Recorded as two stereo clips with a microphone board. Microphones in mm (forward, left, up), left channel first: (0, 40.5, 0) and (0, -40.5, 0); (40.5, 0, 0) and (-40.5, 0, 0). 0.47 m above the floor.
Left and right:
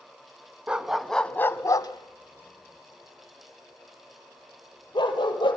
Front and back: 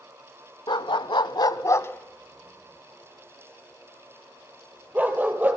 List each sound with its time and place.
0.7 s a dog barking: 15° right, 0.9 m; by 5.6 s 110° left, 3 m